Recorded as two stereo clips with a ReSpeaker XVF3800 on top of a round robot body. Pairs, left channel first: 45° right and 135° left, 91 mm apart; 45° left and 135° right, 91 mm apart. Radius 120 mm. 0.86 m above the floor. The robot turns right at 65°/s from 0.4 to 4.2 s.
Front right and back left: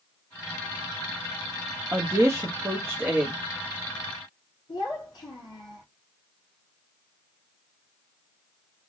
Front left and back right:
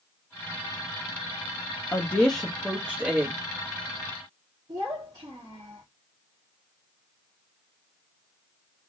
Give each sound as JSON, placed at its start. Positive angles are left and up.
{"t": 1.9, "sound": "a woman speaking", "azimuth_deg": 95, "distance_m": 0.9}
{"t": 4.7, "sound": "a child speaking", "azimuth_deg": -90, "distance_m": 1.1}